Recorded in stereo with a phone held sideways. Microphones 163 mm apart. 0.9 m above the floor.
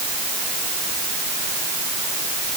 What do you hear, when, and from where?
Only background noise.